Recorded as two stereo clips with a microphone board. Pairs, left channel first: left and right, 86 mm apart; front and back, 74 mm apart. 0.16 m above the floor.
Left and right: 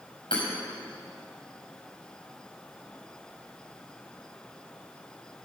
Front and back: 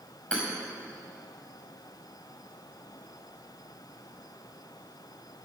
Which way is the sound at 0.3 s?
75° left.